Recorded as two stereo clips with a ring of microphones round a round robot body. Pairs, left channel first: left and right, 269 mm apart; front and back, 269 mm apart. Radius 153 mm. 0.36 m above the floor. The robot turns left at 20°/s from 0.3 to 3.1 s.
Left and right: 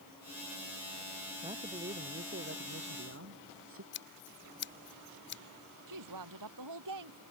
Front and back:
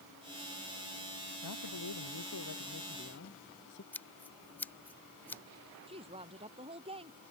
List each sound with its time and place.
1.4 s a man speaking: 20° right; by 3.8 s 50° right
3.9 s scissors: 80° left
5.9 s a woman speaking: 110° right